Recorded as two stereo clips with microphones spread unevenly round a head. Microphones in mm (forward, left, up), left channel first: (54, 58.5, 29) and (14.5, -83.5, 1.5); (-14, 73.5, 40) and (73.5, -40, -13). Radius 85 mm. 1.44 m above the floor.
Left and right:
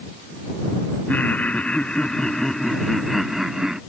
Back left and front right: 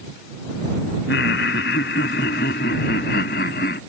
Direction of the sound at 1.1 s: 155° left.